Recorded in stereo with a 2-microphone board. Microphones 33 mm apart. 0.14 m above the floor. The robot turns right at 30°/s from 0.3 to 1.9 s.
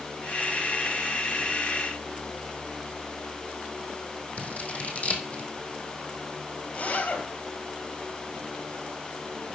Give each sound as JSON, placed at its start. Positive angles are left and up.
{"t": 4.4, "sound": "scissors", "side_deg": 45, "distance_m": 1.6}
{"t": 6.7, "sound": "a zipper", "side_deg": 55, "distance_m": 3.0}